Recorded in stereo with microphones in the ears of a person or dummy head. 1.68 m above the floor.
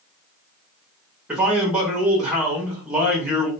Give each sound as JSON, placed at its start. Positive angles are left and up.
{"t": 1.3, "sound": "a man speaking", "side_deg": -5, "distance_m": 0.6}